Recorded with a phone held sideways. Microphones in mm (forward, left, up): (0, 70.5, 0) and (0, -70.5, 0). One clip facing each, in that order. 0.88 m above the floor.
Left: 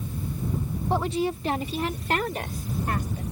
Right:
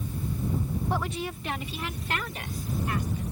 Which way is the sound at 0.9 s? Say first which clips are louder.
Left 10 dB; 25° left (ahead or behind).